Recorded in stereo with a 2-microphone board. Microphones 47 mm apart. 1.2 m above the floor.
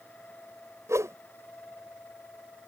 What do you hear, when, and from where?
0.9 s a whoosh: 85° right